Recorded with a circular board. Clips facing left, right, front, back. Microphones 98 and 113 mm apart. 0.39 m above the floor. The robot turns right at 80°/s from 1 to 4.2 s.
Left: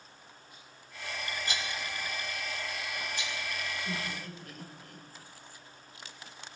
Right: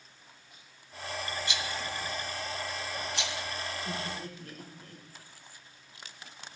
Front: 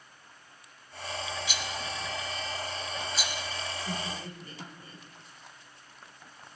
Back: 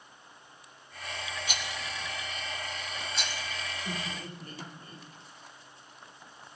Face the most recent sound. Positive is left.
turn(degrees=-140)